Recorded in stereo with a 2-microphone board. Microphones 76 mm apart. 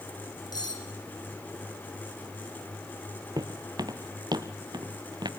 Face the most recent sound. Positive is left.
turn(degrees=-70)  # may be behind; listen again after turning